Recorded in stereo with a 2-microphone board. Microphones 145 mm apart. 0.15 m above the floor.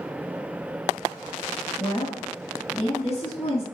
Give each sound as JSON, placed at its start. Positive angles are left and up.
{"t": 1.8, "sound": "a woman speaking", "side_deg": 45, "distance_m": 2.0}